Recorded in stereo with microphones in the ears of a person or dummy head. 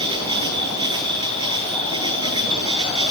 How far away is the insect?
About 1.2 m.